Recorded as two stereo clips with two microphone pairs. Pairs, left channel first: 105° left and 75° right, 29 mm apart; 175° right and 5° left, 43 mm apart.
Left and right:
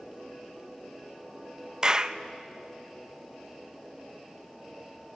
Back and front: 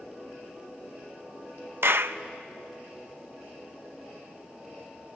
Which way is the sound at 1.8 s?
15° right.